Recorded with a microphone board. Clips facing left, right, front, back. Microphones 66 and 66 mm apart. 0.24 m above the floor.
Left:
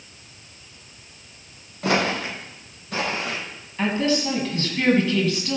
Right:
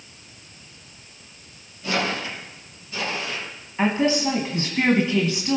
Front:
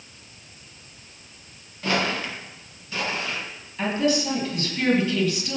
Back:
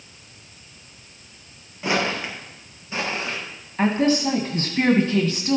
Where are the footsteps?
105° left, 4.5 m; by 3.4 s 120° left, 6 m.